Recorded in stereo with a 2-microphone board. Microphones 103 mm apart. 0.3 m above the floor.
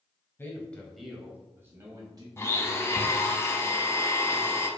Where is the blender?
25° left (ahead or behind), 0.7 m.